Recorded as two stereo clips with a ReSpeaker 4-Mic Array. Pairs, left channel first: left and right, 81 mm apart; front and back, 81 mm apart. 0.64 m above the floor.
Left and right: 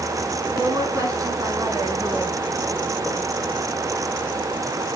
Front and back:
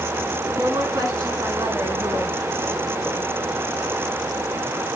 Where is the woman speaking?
135° right, 7 m; by 2.4 s 145° right, 6 m.